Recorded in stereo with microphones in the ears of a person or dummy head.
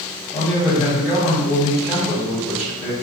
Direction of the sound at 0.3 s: 15° left (ahead or behind).